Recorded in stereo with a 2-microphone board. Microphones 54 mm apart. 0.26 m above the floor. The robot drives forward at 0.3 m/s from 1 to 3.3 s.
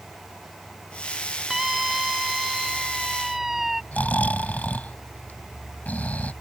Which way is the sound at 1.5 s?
5° right (ahead or behind).